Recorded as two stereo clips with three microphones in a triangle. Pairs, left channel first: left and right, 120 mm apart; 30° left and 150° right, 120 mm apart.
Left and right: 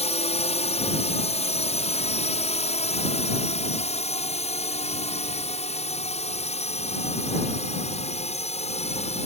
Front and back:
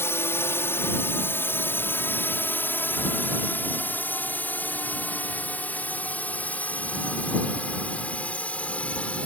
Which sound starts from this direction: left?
A drone, at 0.0 s.